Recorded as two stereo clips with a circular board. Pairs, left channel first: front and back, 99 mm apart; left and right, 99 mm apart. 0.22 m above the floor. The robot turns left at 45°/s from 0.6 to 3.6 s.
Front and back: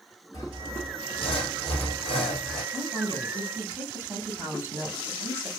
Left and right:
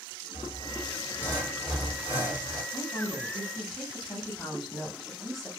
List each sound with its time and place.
0.3 s sawing: 55° left, 1.5 m; by 2.6 s 35° right, 1.5 m
2.7 s a woman speaking: 145° right, 1.3 m; by 5.5 s 175° left, 1.3 m